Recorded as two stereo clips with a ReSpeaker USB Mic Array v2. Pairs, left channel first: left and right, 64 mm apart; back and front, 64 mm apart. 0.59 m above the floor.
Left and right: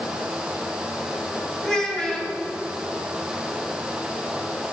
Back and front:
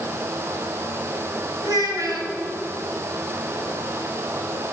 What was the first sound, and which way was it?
A child speaking, 10° left.